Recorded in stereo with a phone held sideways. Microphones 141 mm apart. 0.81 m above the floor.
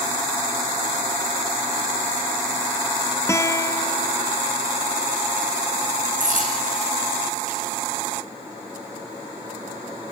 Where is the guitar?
20° left (ahead or behind), 0.8 m.